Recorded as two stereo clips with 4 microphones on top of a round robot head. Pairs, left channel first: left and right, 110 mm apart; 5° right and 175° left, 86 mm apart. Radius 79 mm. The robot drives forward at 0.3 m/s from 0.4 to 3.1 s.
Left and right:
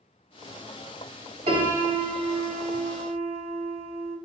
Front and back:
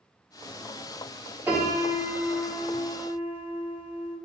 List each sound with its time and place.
1.5 s a piano: 115° right, 3.5 m; by 4.2 s 120° right, 3.5 m